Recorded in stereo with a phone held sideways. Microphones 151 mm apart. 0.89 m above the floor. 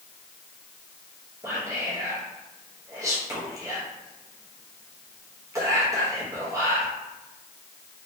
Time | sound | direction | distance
1.4 | whispering | 20° right (ahead or behind) | 0.6 m